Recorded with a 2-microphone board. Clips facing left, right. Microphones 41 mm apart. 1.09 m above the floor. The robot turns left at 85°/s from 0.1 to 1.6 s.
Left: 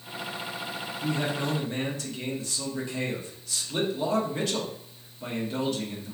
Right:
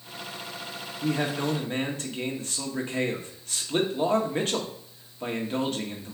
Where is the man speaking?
85° right, 1.3 m; by 6.1 s 135° right, 1.3 m.